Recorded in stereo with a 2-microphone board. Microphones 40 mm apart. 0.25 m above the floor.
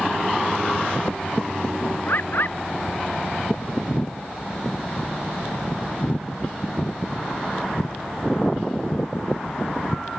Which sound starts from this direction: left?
A bird, at 2.1 s.